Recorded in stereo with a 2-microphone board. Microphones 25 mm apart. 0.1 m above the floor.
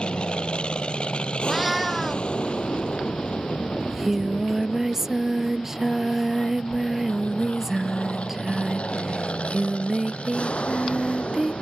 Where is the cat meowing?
5° right (ahead or behind).